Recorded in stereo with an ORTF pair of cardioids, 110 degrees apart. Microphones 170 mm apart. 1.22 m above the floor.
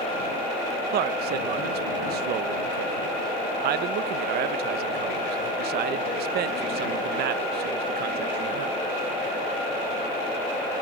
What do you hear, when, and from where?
0.9 s a man speaking: 70° right